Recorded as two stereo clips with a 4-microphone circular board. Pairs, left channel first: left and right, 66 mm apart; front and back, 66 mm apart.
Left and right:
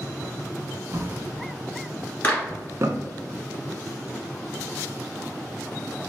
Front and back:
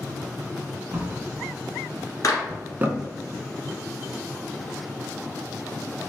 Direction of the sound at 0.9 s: 125° right.